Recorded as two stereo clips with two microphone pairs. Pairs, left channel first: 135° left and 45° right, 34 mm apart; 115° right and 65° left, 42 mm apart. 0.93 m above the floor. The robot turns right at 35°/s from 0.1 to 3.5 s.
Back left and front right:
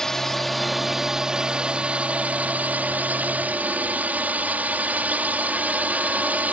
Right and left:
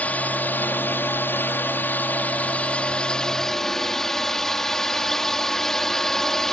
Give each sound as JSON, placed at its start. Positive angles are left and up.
{"t": 0.0, "sound": "a drone", "azimuth_deg": -155}